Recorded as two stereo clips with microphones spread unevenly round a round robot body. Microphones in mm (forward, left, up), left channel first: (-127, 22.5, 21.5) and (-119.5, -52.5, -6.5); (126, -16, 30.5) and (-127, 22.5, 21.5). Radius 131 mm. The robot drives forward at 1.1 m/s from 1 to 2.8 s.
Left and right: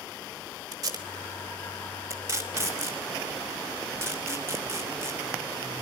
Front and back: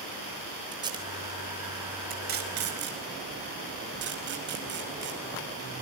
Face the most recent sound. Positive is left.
turn(degrees=-140)